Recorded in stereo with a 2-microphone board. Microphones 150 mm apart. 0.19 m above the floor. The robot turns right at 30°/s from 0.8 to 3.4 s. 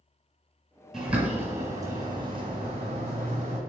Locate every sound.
0.9 s a bird: centre (ahead or behind), 1.8 m; by 3.6 s 45° right (ahead or behind), 1.8 m